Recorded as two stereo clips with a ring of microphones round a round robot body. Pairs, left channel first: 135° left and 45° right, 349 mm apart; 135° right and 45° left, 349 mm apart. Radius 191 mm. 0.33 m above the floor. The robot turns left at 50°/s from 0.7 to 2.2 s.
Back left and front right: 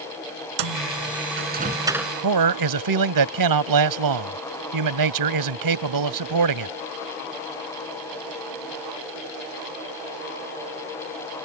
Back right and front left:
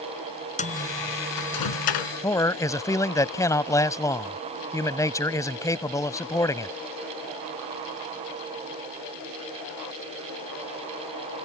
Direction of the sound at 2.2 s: 55° right.